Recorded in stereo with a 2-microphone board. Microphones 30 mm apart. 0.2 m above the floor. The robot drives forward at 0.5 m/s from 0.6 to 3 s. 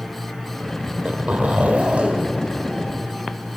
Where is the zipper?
50° right (ahead or behind), 2.5 m; by 3.1 s 35° right (ahead or behind), 3 m.